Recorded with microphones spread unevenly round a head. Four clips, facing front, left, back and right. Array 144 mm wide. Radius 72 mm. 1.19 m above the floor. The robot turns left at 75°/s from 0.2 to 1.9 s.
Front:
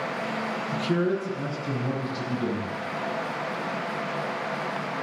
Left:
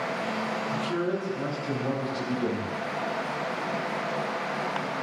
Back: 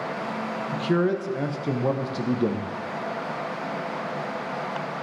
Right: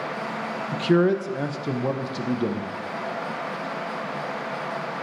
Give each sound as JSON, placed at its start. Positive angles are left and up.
{"t": 0.7, "sound": "a man speaking", "azimuth_deg": -65, "distance_m": 0.7}